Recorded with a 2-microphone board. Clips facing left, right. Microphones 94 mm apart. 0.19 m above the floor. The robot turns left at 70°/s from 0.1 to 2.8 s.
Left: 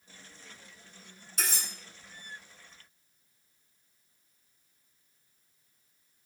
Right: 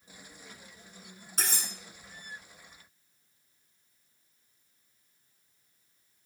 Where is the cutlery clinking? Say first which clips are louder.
Even; 45° right (ahead or behind), 1.4 m; by 1.7 s 60° right (ahead or behind), 1.4 m.